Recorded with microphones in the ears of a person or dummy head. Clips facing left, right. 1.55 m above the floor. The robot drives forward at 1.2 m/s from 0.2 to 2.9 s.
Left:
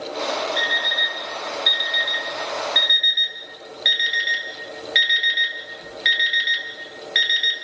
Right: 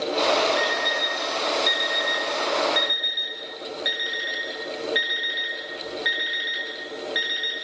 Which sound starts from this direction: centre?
An alarm clock, at 0.6 s.